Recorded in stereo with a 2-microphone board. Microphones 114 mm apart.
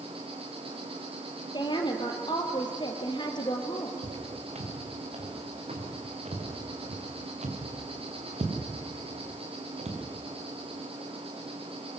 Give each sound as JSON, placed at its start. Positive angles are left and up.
{"t": 0.0, "sound": "an insect", "side_deg": -55, "distance_m": 3.0}
{"t": 1.5, "sound": "a woman speaking", "side_deg": 40, "distance_m": 2.5}
{"t": 4.0, "sound": "footsteps", "side_deg": -75, "distance_m": 5.0}